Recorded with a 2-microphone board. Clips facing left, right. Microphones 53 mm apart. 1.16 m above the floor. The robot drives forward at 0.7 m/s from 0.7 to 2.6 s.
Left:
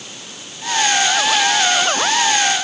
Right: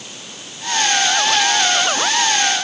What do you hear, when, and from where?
Only background noise.